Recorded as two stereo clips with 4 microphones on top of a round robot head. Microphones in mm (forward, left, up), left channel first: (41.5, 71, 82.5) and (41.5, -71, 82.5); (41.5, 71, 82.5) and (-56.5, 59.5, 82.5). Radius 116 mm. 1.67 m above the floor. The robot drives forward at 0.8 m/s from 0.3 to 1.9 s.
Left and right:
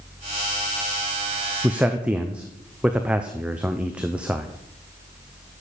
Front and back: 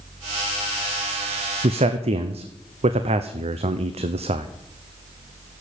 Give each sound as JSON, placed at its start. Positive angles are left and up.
{"t": 1.6, "sound": "a man speaking", "azimuth_deg": -170, "distance_m": 0.6}